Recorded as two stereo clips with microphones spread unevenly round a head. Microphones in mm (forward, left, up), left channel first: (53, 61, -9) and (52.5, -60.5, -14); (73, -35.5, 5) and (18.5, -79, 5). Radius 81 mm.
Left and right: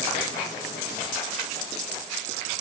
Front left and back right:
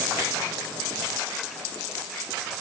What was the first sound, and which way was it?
Only background noise.